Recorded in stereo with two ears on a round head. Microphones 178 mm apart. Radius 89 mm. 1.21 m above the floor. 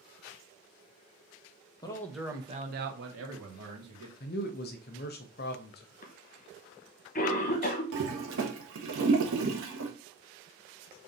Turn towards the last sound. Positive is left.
turn(degrees=-70)  # may be behind; listen again after turning